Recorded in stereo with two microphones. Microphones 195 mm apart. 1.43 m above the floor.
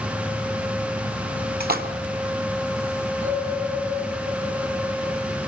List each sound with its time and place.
1.6 s a splash: 55° right (ahead or behind), 3 m
3.2 s a bell: 35° right (ahead or behind), 8 m